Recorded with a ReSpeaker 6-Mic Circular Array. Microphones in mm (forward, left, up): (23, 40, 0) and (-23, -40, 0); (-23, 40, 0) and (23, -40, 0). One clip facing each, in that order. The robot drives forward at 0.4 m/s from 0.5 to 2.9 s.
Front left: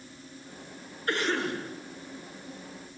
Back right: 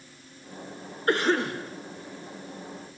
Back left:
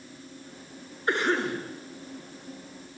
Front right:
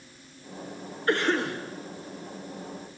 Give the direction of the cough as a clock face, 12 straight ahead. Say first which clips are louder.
Back right 5 dB, front right 1 dB; 6 o'clock.